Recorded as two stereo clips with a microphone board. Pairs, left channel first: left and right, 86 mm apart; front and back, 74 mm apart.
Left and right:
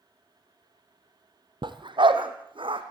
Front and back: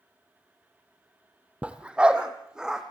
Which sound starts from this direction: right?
A dog barking, at 1.6 s.